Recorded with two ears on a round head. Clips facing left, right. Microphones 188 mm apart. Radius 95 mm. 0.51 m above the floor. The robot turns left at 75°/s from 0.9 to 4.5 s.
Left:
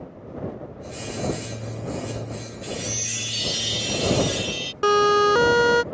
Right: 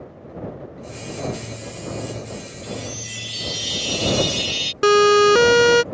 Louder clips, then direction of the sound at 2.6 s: Even; 80° left.